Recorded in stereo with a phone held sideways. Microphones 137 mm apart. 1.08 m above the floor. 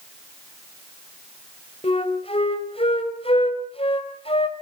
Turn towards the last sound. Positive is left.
turn(degrees=50)  # may be behind; listen again after turning